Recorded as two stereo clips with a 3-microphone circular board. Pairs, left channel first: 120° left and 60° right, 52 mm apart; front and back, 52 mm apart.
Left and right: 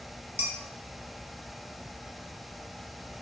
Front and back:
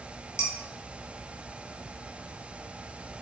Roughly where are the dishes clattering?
Ahead.